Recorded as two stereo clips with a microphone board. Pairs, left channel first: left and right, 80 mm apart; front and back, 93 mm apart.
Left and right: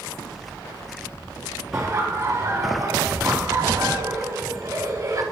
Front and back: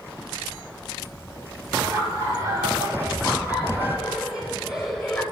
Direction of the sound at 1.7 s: 135° right.